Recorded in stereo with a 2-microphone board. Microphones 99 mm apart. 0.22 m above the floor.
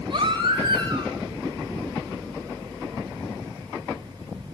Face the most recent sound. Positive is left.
turn(degrees=-50)  # may be behind; listen again after turning